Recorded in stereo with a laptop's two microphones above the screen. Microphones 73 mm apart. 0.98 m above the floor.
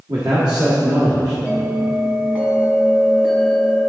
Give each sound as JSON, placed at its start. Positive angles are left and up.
{"t": 0.1, "sound": "a man speaking", "side_deg": -70, "distance_m": 1.4}
{"t": 1.4, "sound": "a bell", "side_deg": -20, "distance_m": 2.0}